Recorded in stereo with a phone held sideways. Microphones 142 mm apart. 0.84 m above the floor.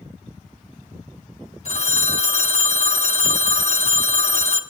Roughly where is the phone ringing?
Left.